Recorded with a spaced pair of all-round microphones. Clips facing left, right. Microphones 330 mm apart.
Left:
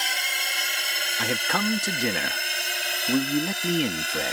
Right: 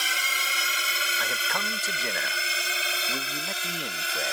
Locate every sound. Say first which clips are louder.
0.0 s a drone: left 1 dB; 10° right (ahead or behind); by 4.3 s 5° right (ahead or behind)
1.2 s a man speaking: left 10 dB; 75° left (ahead or behind)